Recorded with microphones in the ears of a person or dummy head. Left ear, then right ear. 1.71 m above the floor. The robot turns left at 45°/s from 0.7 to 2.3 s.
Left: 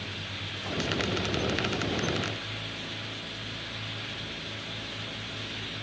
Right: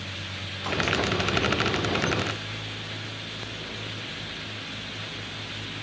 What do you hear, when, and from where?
Only background noise.